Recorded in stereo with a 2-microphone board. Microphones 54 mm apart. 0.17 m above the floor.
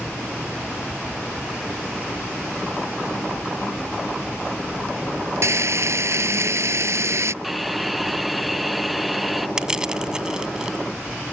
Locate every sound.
5.4 s frying: 65° right (ahead or behind)
7.4 s a hiss: centre (ahead or behind)
9.6 s crushing: 15° right (ahead or behind)